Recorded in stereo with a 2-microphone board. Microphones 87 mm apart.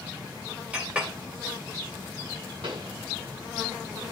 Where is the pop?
80° right, 6.5 m.